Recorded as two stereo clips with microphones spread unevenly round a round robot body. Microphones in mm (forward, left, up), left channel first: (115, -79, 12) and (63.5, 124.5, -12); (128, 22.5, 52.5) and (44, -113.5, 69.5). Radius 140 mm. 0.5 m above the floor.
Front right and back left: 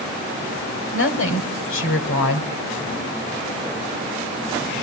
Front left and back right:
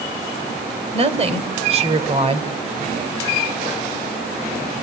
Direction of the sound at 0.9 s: 75° right.